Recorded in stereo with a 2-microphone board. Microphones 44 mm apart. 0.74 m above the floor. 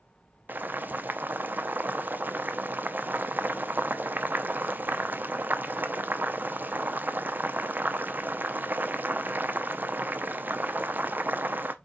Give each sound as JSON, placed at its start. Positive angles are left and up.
{"t": 0.5, "sound": "boiling", "side_deg": -50, "distance_m": 0.5}